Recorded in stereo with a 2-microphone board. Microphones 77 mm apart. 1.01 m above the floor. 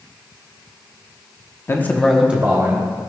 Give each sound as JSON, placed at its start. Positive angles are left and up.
{"t": 1.7, "sound": "a man speaking", "side_deg": 35, "distance_m": 0.8}